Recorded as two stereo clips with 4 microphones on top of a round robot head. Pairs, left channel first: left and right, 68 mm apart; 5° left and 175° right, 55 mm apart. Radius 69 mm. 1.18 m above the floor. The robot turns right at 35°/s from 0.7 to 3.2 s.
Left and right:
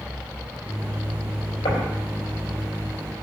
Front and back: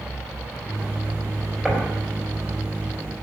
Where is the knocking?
100° left, 4.5 m; by 2.0 s 110° left, 4.5 m.